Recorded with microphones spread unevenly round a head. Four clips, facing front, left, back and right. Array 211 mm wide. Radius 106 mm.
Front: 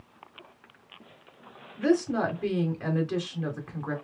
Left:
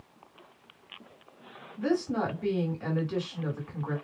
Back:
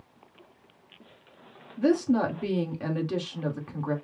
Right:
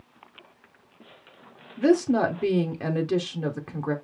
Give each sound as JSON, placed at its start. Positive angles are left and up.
{"t": 1.8, "sound": "a woman speaking", "azimuth_deg": -100, "distance_m": 1.7}